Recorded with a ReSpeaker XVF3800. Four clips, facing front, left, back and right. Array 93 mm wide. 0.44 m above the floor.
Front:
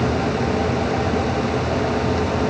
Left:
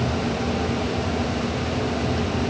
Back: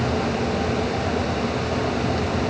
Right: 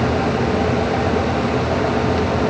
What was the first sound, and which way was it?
Only background noise.